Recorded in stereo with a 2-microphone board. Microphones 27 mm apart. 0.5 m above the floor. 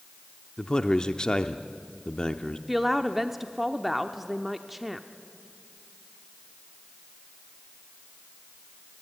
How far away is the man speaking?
About 0.8 m.